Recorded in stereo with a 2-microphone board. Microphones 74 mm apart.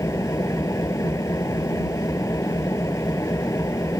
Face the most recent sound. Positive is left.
turn(degrees=45)  # may be behind; listen again after turning